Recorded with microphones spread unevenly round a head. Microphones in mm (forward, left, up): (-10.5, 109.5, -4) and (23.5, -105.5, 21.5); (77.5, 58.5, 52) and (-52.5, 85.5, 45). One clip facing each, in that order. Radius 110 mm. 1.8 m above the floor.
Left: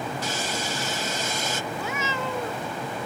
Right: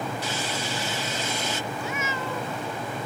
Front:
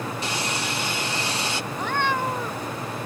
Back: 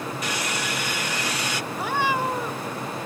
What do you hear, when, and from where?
0.2 s sawing: 50° left
1.7 s a cat meowing: 85° left